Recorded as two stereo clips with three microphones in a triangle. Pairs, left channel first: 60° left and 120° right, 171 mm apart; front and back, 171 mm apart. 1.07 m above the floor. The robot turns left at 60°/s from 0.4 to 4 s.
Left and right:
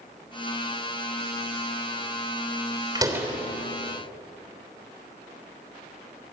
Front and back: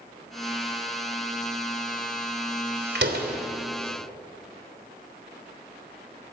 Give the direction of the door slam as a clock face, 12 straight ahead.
6 o'clock.